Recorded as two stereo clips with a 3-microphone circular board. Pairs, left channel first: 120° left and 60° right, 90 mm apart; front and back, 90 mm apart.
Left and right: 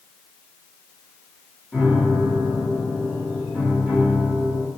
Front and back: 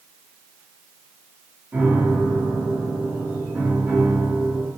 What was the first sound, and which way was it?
A piano, 145° right.